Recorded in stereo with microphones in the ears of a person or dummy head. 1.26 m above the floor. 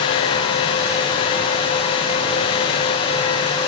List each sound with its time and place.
Only background noise.